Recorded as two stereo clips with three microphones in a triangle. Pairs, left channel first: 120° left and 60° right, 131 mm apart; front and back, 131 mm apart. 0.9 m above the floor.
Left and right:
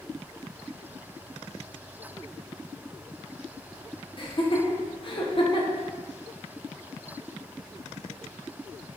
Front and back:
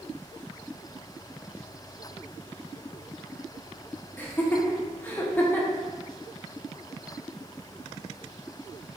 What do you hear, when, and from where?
4.2 s laughter: 75° left, 0.6 m